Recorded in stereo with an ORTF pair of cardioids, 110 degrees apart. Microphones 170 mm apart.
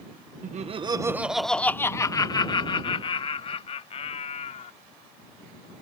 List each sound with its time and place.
0.4 s laughter: 50° right; by 4.7 s 45° left